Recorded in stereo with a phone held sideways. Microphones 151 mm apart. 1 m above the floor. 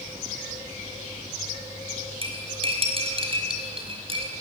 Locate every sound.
2.2 s cutlery clinking: 40° right (ahead or behind), 4.5 m